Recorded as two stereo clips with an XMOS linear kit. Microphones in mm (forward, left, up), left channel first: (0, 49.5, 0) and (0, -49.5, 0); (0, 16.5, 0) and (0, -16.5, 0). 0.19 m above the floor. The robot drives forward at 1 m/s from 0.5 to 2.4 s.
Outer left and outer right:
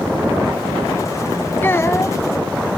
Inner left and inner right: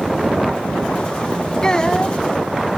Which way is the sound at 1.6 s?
25° left (ahead or behind).